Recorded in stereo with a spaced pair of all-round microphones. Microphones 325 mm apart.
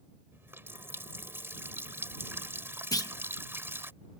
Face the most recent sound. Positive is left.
turn(degrees=10)  # may be behind; listen again after turning